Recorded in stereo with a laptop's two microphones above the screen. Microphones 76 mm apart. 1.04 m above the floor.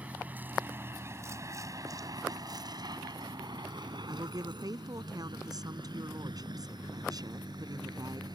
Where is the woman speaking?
60° right (ahead or behind).